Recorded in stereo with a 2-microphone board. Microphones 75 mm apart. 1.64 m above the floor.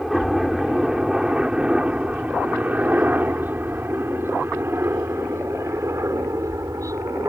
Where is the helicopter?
Centre (ahead or behind); by 7.3 s 45° right (ahead or behind).